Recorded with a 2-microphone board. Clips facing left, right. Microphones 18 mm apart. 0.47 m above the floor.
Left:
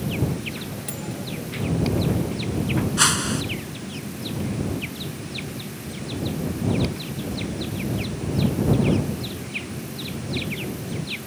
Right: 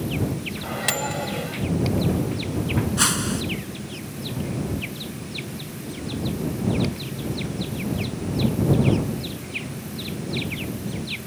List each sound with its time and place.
0.6 s a microwave: 65° right (ahead or behind)
3.0 s a whoosh: 10° left (ahead or behind)